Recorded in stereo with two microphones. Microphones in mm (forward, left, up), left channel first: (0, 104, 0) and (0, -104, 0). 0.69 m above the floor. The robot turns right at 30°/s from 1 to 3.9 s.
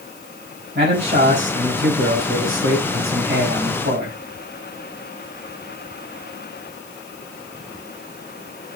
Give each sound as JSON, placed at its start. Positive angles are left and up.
{"t": 0.8, "sound": "a man speaking", "azimuth_deg": -130, "distance_m": 5.0}